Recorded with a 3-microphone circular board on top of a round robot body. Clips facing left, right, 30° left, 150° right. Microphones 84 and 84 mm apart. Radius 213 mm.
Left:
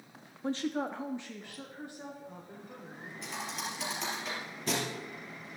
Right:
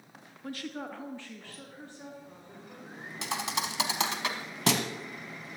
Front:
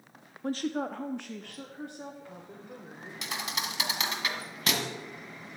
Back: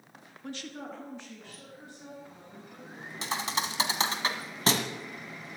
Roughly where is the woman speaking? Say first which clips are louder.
Left 6 dB, front 9 dB; ahead left.